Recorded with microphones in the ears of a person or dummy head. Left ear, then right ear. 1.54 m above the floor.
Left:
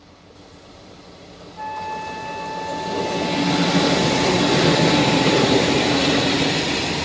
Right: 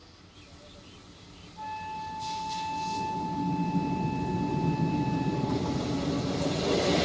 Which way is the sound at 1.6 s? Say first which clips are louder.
Left 8 dB; 70° left (ahead or behind).